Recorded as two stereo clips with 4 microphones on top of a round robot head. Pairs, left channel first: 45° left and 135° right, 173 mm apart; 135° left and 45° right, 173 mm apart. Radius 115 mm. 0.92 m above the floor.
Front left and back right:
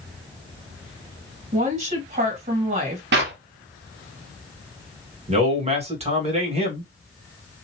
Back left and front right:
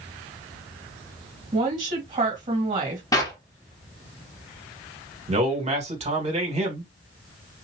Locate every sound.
1.5 s a woman speaking: 95° right, 1.9 m
3.1 s a clap: 155° right, 1.2 m
5.3 s a man speaking: 90° right, 1.7 m